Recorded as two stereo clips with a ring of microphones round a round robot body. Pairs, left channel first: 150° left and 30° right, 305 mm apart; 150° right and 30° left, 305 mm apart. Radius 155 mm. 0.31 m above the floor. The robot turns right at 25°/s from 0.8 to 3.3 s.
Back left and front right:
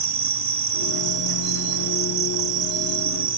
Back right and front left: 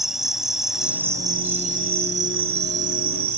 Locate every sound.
0.0 s an insect: 60° right; by 3.4 s 5° left